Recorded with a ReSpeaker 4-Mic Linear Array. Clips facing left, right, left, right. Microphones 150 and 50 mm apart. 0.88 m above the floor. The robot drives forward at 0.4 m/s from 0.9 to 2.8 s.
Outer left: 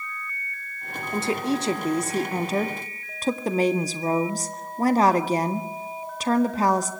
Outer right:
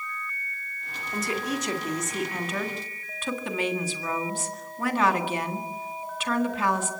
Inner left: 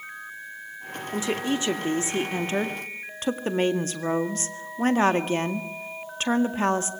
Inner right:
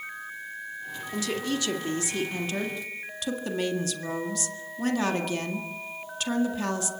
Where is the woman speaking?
30° left (ahead or behind), 2 m; by 6.9 s 40° left (ahead or behind), 1.6 m.